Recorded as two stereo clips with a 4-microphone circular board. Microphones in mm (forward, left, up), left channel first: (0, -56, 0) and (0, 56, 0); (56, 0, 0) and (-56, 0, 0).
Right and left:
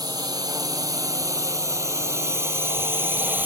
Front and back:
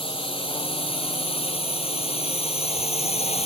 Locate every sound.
0.0 s a drone: 35° left; by 3.5 s 15° left